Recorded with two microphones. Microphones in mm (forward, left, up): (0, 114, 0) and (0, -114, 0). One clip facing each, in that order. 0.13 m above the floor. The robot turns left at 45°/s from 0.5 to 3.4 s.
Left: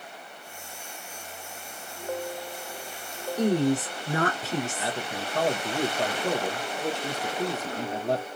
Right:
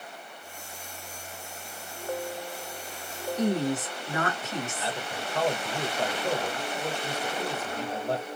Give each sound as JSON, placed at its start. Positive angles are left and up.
{"t": 3.4, "sound": "a woman speaking", "side_deg": 35, "distance_m": 1.6}
{"t": 4.8, "sound": "a man speaking", "side_deg": 15, "distance_m": 1.7}